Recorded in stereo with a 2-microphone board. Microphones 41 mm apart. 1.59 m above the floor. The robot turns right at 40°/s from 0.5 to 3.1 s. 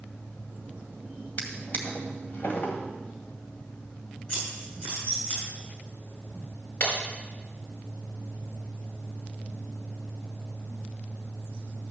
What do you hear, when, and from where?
1.4 s a drawer: 40° left (ahead or behind), 2 m; by 2.8 s 45° left (ahead or behind), 2 m
4.3 s scissors: 25° left (ahead or behind), 7 m
6.8 s breaking glass: 60° left (ahead or behind), 4.5 m